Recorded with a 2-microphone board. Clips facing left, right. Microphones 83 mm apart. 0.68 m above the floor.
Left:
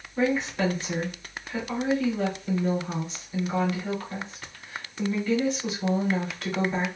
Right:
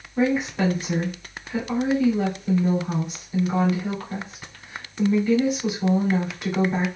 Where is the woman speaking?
15° right (ahead or behind), 2.5 m.